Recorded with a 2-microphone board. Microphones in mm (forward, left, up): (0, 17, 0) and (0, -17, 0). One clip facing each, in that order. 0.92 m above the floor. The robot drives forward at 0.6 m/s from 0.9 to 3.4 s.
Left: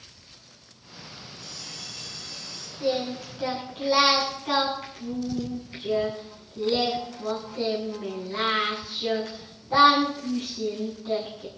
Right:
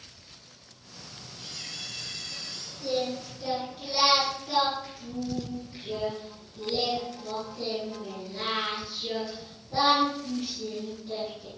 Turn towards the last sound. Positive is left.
turn(degrees=80)